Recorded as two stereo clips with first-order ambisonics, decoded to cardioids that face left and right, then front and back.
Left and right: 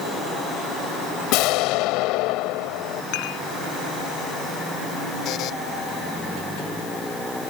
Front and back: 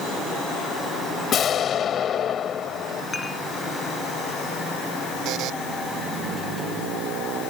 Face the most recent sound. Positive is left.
turn(degrees=140)